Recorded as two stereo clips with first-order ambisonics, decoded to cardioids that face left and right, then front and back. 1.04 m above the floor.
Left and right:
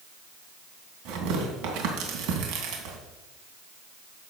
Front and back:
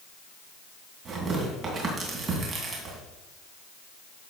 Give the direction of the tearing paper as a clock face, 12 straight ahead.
4 o'clock.